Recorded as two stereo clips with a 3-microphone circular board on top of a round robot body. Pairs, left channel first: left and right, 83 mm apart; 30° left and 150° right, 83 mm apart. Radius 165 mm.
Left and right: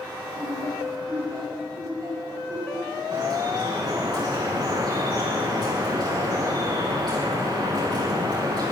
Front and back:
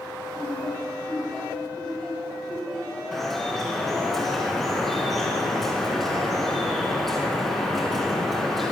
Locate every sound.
0.3 s laughter: 50° right, 6.5 m
3.1 s dripping: 55° right, 6.5 m